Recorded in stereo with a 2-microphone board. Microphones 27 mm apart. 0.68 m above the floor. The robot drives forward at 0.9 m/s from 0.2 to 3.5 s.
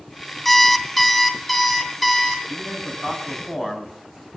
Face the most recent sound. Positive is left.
turn(degrees=-10)  # may be behind; listen again after turning